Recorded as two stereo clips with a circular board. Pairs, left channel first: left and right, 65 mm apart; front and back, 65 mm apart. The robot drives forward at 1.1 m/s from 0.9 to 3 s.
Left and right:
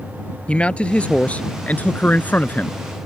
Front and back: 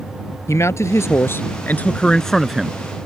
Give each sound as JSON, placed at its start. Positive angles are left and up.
{"t": 0.5, "sound": "a man speaking", "azimuth_deg": 25}